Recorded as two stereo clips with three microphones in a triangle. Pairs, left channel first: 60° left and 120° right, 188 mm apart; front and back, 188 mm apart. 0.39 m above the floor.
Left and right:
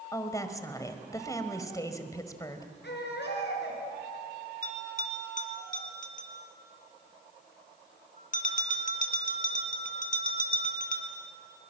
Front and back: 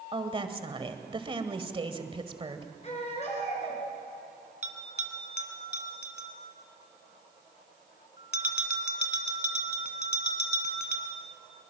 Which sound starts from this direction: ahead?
A bell, at 4.6 s.